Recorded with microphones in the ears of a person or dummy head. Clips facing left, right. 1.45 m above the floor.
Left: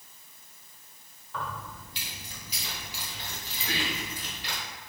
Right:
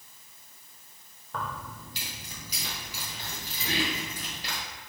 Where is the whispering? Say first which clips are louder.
Right 3 dB; 70° right (ahead or behind), 1.3 m.